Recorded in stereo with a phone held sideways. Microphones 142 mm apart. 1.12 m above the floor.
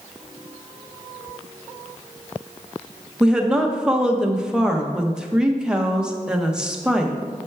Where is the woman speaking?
5° right (ahead or behind), 0.7 m.